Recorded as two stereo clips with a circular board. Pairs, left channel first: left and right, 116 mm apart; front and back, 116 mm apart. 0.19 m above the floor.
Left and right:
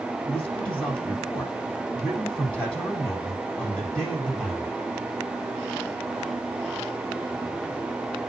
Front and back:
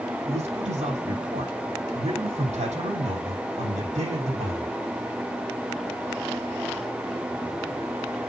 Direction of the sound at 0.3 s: 170° left.